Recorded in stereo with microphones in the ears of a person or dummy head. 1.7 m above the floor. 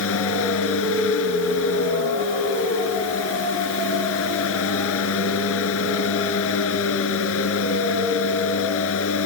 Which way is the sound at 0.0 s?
75° left (ahead or behind).